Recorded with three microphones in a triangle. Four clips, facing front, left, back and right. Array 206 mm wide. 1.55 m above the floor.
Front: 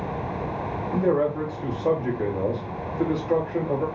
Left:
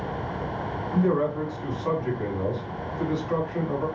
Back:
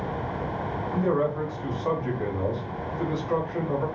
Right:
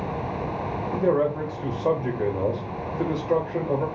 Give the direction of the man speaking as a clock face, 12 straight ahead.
2 o'clock.